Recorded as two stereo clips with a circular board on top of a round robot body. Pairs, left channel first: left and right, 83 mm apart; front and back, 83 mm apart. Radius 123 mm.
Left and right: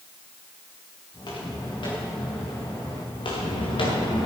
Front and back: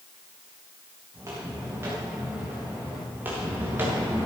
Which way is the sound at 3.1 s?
110° left.